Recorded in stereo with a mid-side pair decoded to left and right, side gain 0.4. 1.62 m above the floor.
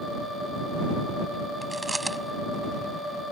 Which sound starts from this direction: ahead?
Chewing, at 1.6 s.